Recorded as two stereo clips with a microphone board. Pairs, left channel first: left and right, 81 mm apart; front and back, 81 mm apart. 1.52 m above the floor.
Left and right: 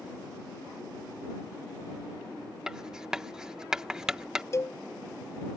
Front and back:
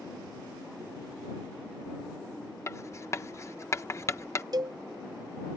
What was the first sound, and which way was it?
Writing, 15° right.